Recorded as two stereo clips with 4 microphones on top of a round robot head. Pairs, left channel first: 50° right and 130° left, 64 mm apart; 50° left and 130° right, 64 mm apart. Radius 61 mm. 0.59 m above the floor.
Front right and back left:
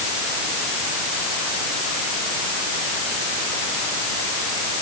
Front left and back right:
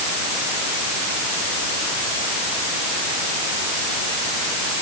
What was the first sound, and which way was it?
Only background noise.